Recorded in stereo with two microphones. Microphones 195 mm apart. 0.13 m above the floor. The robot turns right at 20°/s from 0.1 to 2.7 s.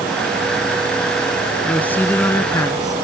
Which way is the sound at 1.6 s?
5° left (ahead or behind).